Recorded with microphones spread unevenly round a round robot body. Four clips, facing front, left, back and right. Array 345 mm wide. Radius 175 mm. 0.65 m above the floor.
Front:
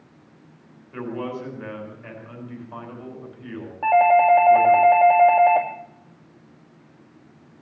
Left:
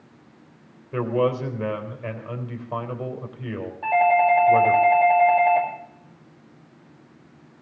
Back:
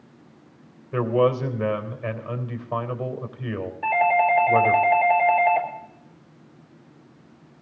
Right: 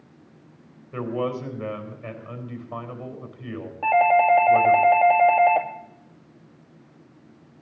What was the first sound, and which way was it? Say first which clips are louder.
A man speaking: left 5 dB, back 10 dB; 145° left.